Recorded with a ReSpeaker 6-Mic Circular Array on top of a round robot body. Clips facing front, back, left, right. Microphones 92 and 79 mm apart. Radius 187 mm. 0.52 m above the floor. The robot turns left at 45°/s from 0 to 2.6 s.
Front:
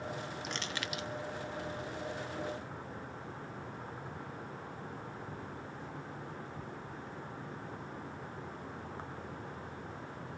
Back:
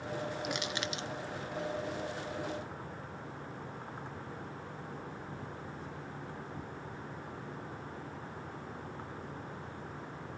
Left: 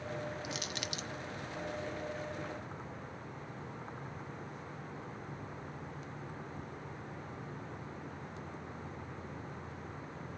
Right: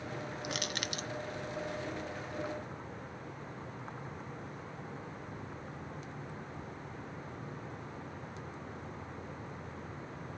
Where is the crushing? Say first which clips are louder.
Back 3 dB, right 3 dB; 100° right, 0.8 m; by 1.1 s 125° right, 0.8 m.